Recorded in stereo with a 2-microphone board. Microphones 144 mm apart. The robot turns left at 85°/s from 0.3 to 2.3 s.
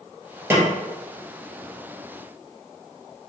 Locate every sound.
0.5 s a snare drum: 15° right (ahead or behind), 1.0 m; by 0.7 s 30° right (ahead or behind), 1.0 m